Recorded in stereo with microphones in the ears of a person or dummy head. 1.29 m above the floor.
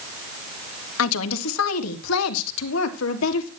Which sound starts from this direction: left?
A woman speaking, at 1.0 s.